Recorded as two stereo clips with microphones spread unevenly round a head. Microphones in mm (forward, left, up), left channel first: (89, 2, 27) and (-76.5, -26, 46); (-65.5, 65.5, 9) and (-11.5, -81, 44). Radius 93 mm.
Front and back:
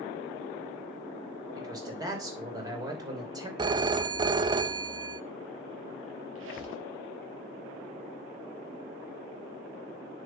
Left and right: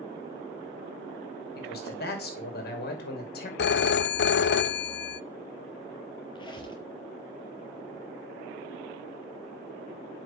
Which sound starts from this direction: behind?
A squeak, at 6.3 s.